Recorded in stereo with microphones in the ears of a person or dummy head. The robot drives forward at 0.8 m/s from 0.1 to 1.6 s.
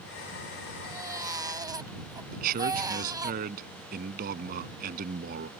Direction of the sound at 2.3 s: 50° right (ahead or behind).